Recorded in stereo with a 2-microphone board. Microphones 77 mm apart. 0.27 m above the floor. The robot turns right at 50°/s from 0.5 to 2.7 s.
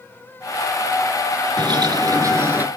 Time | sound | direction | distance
1.6 | a bird | 80° right | 2 m